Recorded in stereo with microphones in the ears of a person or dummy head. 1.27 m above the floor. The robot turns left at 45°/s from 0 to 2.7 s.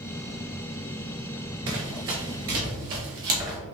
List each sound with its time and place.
1.7 s running footsteps: 15° right (ahead or behind), 1.3 m; by 3.6 s 25° right (ahead or behind), 1.6 m